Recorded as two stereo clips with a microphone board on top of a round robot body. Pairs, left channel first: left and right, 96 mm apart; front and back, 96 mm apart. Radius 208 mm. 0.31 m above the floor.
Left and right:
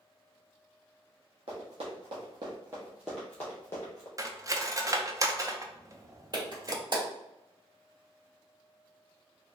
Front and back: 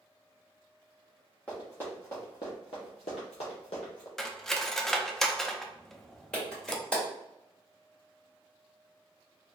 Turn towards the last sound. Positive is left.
turn(degrees=-75)